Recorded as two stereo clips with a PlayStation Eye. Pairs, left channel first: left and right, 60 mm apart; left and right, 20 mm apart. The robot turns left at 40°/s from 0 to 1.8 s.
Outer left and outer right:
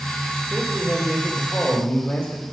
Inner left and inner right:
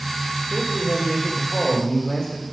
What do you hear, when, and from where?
0.5 s a man speaking: 175° right, 2.5 m; by 2.4 s 135° left, 2.5 m